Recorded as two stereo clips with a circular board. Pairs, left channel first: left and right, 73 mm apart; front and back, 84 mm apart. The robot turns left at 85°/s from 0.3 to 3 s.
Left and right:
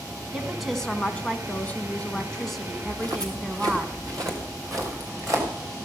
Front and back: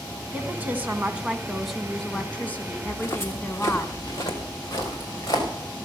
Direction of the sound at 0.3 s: 160° right.